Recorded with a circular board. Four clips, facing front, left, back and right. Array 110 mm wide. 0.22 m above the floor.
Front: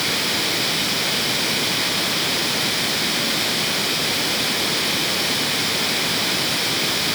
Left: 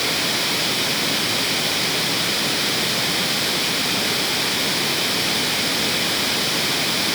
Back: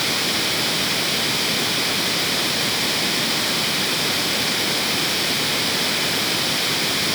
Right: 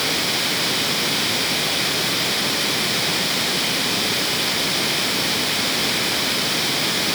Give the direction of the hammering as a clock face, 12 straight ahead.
I don't hear hammering.